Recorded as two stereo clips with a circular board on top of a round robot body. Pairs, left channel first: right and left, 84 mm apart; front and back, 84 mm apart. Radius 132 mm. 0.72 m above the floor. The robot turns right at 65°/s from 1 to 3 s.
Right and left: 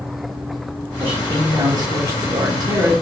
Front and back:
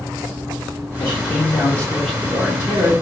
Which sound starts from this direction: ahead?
A man speaking, at 1.0 s.